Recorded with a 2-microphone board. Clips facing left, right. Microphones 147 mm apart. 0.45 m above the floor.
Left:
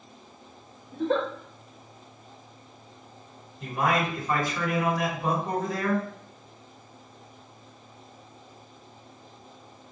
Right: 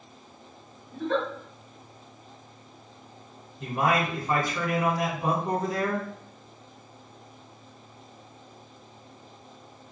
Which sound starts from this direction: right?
A man speaking, at 3.6 s.